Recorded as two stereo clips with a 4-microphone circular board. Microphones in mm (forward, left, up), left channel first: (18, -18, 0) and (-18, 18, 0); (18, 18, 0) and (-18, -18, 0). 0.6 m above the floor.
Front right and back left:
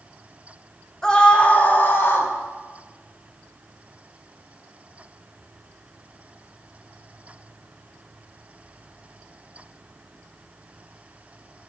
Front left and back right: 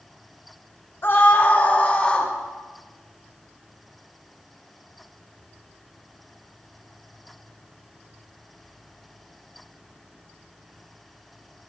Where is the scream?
25° left, 1.5 m; by 2.3 s 20° right, 2.5 m.